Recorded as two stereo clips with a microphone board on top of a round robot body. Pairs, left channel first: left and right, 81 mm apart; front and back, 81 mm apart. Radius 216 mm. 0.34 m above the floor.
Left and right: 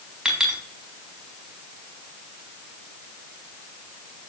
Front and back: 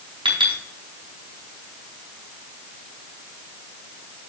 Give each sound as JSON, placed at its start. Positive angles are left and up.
{"t": 0.2, "sound": "a clink", "azimuth_deg": -175, "distance_m": 4.0}